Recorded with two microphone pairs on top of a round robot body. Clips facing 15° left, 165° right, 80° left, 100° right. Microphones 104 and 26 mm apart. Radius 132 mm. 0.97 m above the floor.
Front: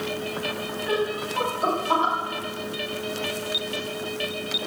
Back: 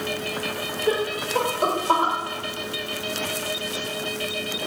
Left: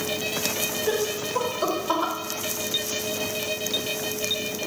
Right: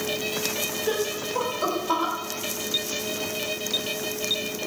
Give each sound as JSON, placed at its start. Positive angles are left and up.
{"t": 0.9, "sound": "laughter", "azimuth_deg": 175, "distance_m": 3.5}